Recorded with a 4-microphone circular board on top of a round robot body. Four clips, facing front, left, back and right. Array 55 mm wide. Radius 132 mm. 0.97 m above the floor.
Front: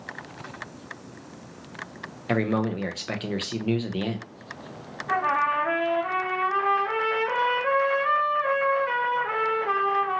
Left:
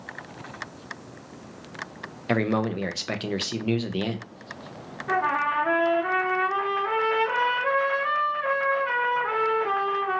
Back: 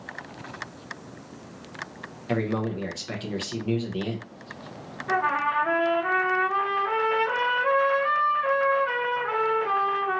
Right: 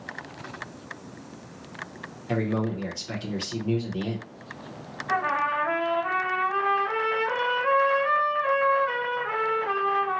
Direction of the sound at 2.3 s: 60° left.